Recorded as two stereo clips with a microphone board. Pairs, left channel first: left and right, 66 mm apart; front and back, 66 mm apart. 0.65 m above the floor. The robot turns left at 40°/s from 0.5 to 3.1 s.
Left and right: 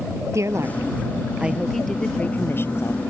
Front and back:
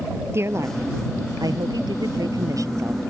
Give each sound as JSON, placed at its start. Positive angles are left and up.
{"t": 0.3, "sound": "a woman speaking", "azimuth_deg": -130}